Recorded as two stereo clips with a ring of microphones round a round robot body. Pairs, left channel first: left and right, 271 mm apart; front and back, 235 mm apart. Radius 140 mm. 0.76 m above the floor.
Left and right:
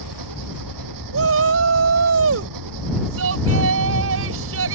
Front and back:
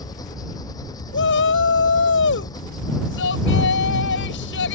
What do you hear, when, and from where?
0.0 s an engine running: 75° right
1.1 s a shout: 50° right